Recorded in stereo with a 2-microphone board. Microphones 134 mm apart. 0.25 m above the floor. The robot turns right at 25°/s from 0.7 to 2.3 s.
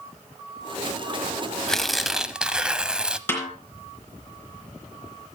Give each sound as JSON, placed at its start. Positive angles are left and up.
{"t": 1.7, "sound": "tearing paper", "side_deg": 5, "distance_m": 0.6}
{"t": 3.3, "sound": "a snare drum", "side_deg": 15, "distance_m": 3.5}